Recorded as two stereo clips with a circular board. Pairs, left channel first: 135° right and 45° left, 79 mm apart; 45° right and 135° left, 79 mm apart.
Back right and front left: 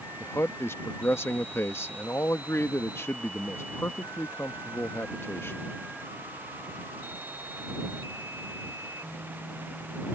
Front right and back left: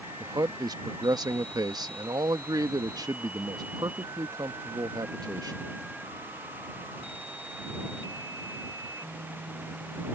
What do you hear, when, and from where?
0.2 s a man speaking: 165° left